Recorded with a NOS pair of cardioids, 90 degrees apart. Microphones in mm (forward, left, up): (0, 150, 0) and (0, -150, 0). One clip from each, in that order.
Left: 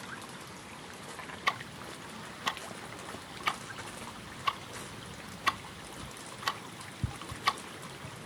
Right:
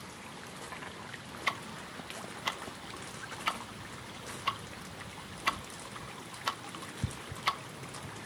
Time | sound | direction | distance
1.5 | ticking | 5° left | 0.5 m